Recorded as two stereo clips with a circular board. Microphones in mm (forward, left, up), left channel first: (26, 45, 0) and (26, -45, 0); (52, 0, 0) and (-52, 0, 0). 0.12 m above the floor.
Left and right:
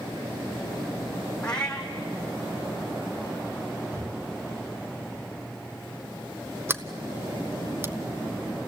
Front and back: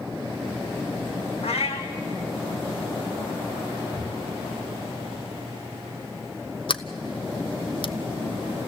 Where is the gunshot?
135° right, 3 m.